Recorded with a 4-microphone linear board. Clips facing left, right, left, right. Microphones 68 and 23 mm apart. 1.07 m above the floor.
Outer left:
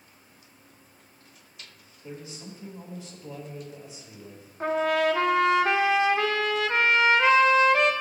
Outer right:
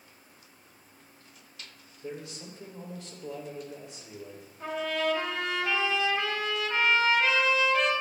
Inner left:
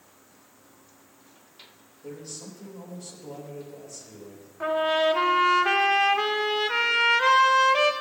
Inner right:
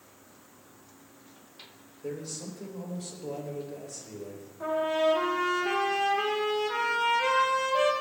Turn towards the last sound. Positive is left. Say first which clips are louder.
# outer left 6 dB, inner left 3 dB
turn(degrees=50)  # may be behind; listen again after turning